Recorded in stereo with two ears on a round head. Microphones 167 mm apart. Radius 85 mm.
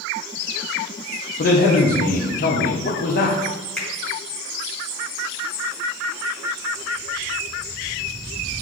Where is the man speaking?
55° left (ahead or behind), 0.9 m.